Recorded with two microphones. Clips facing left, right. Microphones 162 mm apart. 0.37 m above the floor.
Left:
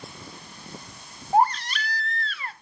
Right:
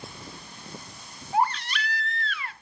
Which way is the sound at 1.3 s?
35° left (ahead or behind).